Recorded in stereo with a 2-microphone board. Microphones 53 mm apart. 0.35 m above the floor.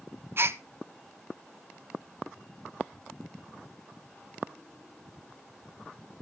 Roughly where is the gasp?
Right.